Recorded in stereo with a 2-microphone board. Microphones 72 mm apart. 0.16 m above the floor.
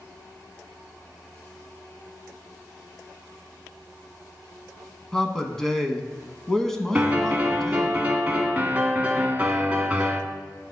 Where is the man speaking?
5° left (ahead or behind), 1.1 m.